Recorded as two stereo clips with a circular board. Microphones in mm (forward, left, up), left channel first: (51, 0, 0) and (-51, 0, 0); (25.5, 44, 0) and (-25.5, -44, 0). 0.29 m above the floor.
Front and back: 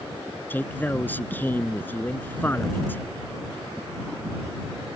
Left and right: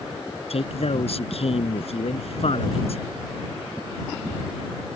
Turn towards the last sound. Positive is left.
turn(degrees=70)